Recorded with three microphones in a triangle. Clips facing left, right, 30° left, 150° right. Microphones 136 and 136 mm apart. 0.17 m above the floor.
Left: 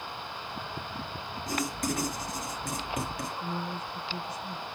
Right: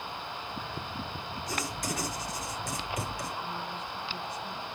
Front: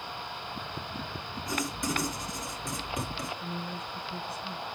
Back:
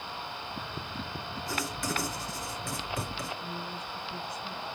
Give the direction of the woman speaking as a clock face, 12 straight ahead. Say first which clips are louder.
Left 2 dB, front 1 dB; 9 o'clock.